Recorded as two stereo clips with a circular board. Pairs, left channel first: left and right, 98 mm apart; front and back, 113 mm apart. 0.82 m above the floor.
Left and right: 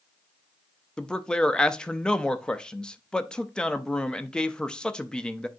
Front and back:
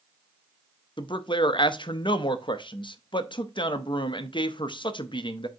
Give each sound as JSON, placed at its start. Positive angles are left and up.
{"t": 1.0, "sound": "a man speaking", "azimuth_deg": 10, "distance_m": 0.6}